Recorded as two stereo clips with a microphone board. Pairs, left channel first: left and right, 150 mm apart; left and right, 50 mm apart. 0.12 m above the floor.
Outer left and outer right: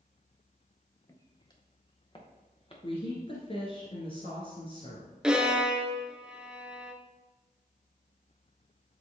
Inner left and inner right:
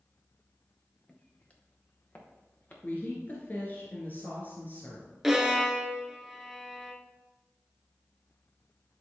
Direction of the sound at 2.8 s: 40° left (ahead or behind).